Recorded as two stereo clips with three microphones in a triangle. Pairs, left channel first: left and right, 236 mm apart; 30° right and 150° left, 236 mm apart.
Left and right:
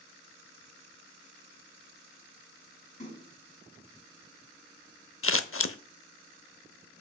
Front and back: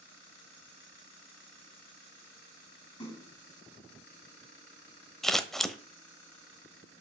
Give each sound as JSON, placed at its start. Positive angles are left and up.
{"t": 3.0, "sound": "a splash", "azimuth_deg": 30, "distance_m": 5.5}
{"t": 5.2, "sound": "scissors", "azimuth_deg": 60, "distance_m": 0.6}